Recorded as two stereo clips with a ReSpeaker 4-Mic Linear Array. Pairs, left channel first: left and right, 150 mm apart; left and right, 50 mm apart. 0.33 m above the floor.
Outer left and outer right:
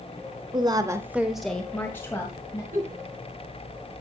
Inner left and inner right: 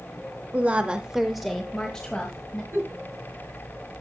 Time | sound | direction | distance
0.5 | a woman speaking | 30° right (ahead or behind) | 1.0 m
2.7 | a giggle | 70° right (ahead or behind) | 2.5 m